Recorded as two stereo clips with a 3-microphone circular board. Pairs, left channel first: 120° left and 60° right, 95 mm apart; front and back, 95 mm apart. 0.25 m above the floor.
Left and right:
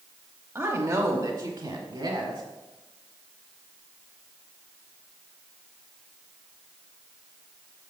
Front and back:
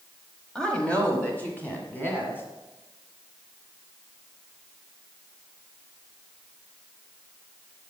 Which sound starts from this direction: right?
A woman speaking, at 0.6 s.